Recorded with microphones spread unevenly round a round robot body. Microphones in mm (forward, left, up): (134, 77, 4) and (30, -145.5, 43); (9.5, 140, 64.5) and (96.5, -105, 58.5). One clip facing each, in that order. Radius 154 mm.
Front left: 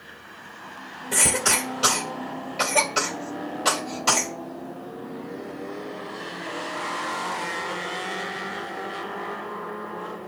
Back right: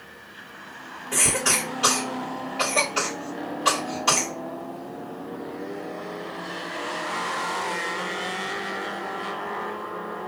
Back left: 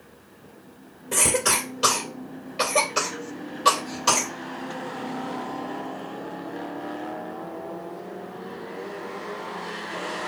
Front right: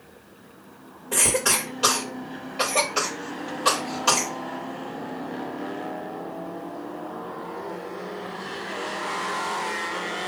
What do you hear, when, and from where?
1.1 s a cough: 50° left, 3 m